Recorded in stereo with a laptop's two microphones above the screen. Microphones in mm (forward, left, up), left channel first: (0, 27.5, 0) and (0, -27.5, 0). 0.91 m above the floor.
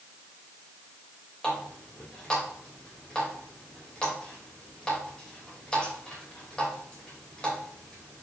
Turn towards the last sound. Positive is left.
turn(degrees=25)  # may be behind; listen again after turning